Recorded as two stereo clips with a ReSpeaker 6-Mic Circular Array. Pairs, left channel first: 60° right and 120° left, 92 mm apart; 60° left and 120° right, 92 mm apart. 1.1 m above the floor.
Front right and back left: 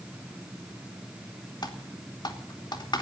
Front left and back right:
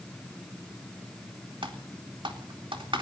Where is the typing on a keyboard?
95° right, 2.5 m.